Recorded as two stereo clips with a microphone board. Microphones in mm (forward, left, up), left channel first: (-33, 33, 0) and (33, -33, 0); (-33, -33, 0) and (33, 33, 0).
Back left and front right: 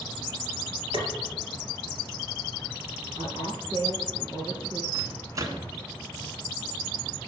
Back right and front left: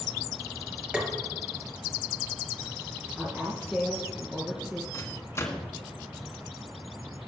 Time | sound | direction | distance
0.9 | tapping | 35° right | 4 m
3.2 | a woman speaking | 30° right | 4 m
4.9 | a microwave | 85° right | 1.9 m